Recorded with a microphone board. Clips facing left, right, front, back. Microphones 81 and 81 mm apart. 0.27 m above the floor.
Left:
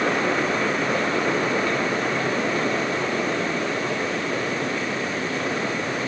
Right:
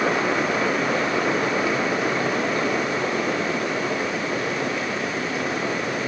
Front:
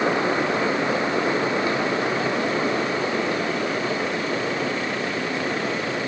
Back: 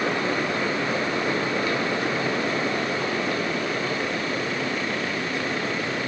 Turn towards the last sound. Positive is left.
No sound to turn to.